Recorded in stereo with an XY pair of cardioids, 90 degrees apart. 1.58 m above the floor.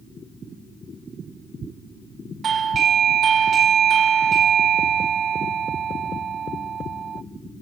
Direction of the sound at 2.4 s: 60° right.